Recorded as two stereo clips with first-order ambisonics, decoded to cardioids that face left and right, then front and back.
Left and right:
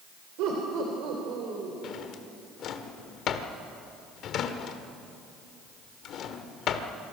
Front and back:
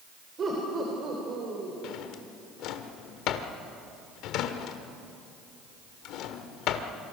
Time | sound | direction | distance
0.4 | laughter | 115° right | 3.5 m
1.8 | a drawer | 40° left | 1.4 m